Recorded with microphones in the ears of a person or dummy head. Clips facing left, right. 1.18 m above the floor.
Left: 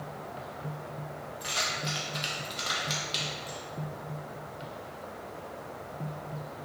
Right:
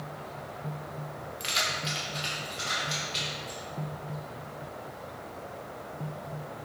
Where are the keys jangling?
30° right (ahead or behind), 0.8 m; by 3.6 s 70° left (ahead or behind), 1.4 m.